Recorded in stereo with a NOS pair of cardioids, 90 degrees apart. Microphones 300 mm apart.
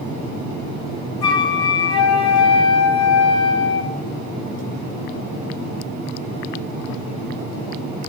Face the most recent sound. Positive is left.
turn(degrees=60)